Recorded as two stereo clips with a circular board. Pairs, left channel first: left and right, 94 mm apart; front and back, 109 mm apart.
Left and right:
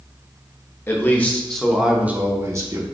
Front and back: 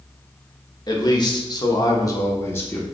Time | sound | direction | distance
0.9 | a man speaking | 35° left | 1.0 m